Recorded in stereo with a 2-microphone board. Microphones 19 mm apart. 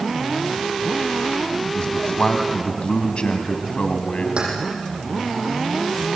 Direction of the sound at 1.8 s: 55° left (ahead or behind).